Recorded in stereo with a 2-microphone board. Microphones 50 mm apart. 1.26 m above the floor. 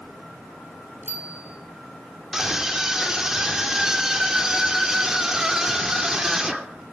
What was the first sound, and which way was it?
A bicycle bell, 45° right (ahead or behind).